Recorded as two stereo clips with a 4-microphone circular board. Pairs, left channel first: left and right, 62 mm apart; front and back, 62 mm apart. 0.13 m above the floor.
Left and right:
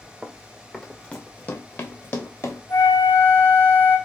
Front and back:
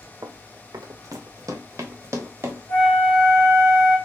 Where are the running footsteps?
165° right, 0.6 m; by 2.6 s 130° left, 1.4 m.